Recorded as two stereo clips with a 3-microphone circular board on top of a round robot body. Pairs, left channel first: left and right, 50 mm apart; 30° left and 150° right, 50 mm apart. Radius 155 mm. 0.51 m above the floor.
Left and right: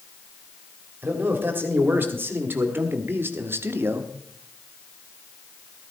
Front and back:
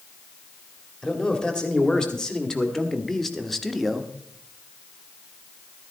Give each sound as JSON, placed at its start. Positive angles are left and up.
{"t": 1.0, "sound": "a man speaking", "azimuth_deg": -40, "distance_m": 3.0}